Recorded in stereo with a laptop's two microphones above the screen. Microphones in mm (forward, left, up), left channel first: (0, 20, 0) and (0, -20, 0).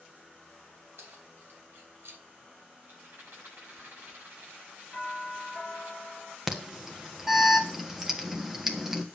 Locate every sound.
1.0 s keys jangling: 75° right (ahead or behind), 4 m; by 2.2 s 65° right (ahead or behind), 2.5 m
2.8 s a rattle: 65° right (ahead or behind), 7 m
4.9 s a doorbell: 25° right (ahead or behind), 5.5 m
6.5 s an alarm: 10° right (ahead or behind), 1.4 m